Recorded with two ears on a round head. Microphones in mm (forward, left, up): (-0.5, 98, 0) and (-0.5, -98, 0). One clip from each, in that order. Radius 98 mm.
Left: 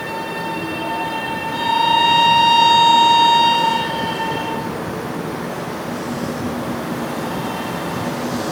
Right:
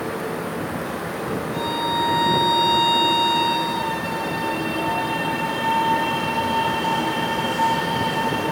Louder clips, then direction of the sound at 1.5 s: Left 9 dB; 15° left (ahead or behind).